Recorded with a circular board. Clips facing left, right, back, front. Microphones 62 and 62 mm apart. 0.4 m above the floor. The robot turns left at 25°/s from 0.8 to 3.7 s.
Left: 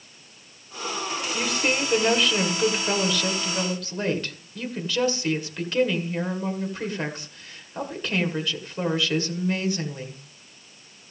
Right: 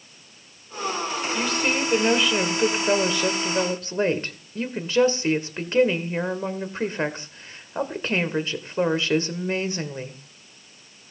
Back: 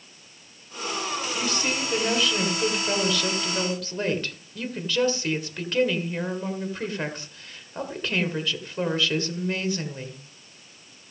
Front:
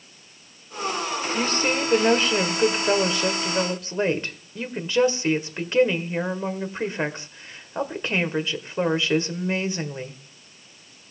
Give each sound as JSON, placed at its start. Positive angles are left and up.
{"t": 1.3, "sound": "a woman speaking", "azimuth_deg": 5, "distance_m": 1.8}